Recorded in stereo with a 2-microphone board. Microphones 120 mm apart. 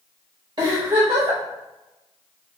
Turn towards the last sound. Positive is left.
turn(degrees=-35)  # may be behind; listen again after turning